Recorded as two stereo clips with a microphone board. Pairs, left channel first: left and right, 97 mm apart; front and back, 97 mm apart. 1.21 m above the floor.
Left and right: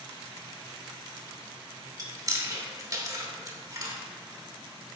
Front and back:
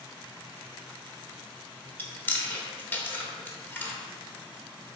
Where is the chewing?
60° right, 1.1 m.